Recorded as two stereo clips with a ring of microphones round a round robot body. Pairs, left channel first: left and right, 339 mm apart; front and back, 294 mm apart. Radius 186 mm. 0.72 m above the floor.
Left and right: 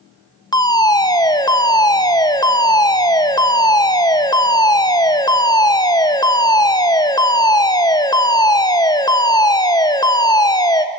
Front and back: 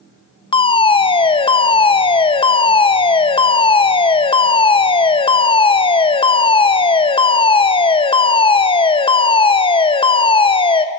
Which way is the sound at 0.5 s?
35° left.